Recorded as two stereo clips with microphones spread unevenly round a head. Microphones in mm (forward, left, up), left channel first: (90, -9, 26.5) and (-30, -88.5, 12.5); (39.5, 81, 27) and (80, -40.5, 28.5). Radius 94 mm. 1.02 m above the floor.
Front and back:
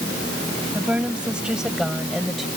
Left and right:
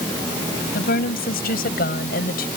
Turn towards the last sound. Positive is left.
turn(degrees=125)